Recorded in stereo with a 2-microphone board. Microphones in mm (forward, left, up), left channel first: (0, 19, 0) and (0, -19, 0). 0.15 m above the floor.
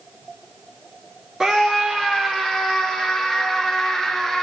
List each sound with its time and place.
1.4 s a scream: 10° right (ahead or behind), 4 m; by 4.4 s centre (ahead or behind), 7 m